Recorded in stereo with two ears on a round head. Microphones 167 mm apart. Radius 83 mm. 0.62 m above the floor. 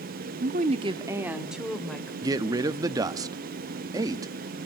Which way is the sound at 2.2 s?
20° right (ahead or behind).